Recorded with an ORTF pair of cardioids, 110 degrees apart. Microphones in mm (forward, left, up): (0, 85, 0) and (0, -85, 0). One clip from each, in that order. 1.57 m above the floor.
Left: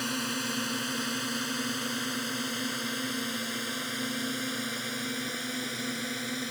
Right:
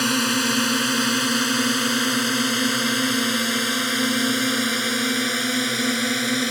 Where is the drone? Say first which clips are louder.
Right 11 dB; 65° right.